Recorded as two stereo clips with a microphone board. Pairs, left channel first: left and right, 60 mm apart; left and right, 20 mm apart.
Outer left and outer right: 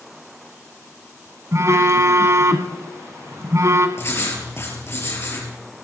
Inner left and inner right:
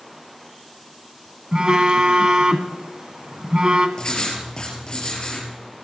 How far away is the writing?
About 5.5 m.